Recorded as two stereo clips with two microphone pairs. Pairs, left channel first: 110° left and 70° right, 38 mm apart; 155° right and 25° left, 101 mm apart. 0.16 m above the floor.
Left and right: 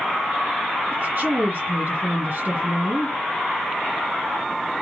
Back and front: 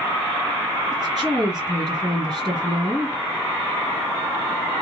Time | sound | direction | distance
0.9 | a woman speaking | 65° right | 3 m